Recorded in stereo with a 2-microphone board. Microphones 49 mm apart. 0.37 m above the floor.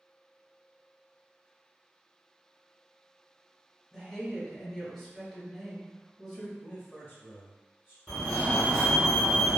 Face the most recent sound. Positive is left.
turn(degrees=5)  # may be behind; listen again after turning